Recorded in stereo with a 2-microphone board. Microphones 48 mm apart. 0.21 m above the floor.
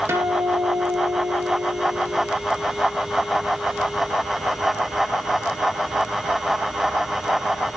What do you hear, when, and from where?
0.1 s a guitar: 65° right (ahead or behind), 2 m